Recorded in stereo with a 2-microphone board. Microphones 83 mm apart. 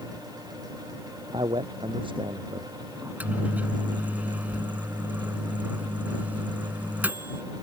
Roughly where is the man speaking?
Right.